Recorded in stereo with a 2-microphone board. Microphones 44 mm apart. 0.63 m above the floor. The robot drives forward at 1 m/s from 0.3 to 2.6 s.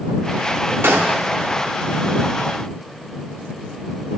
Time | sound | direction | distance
0.8 | a gunshot | 70° right (ahead or behind) | 0.7 m